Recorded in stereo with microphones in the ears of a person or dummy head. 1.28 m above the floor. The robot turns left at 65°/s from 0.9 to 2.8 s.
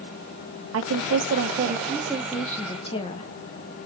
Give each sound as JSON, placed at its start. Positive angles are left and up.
{"t": 0.7, "sound": "a woman speaking", "azimuth_deg": -90, "distance_m": 0.8}